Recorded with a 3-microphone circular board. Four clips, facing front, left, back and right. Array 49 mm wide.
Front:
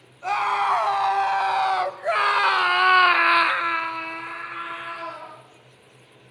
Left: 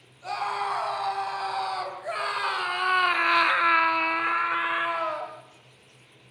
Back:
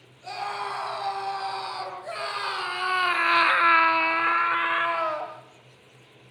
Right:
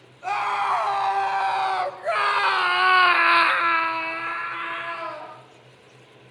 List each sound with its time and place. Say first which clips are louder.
0.2 s a scream: right 5 dB, front 10 dB; 30° right, 5 m; by 5.3 s 155° left, 3 m